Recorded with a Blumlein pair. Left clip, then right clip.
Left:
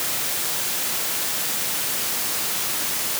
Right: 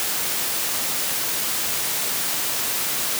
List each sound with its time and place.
Only background noise.